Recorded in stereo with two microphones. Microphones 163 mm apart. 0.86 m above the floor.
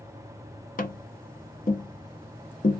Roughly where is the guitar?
No guitar in this recording.